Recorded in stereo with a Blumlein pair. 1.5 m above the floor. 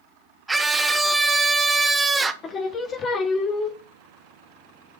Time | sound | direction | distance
0.5 | a scream | 10° right | 0.9 m
2.4 | singing | 20° left | 0.9 m